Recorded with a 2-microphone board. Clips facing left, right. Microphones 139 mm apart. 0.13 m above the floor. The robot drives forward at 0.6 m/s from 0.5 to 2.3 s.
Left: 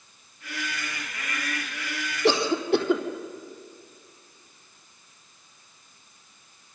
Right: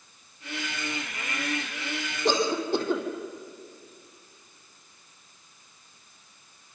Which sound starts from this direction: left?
A cough, at 2.2 s.